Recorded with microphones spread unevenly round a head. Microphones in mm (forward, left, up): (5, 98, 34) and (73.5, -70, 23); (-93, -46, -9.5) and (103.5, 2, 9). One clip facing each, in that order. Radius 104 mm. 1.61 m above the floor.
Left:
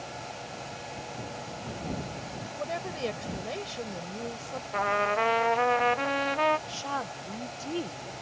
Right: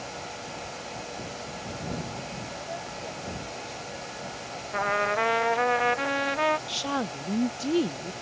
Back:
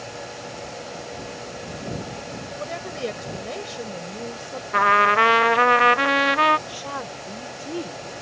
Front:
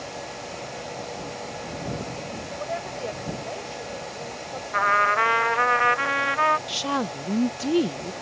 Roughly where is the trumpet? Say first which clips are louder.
Right 1 dB, back 5 dB; behind right.